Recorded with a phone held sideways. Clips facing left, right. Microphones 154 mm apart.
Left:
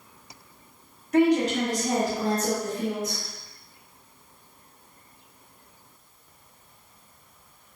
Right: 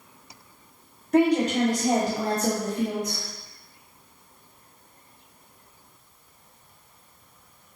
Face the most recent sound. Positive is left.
turn(degrees=-40)  # may be behind; listen again after turning